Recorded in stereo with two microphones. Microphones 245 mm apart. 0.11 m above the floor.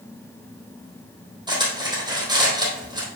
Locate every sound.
1.5 s cutlery clinking: 20° right (ahead or behind), 3 m